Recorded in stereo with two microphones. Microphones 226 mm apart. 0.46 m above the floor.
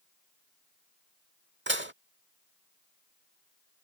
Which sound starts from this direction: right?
Dishes clattering, at 1.7 s.